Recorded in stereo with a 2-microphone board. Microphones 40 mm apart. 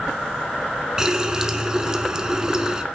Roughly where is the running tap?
Centre.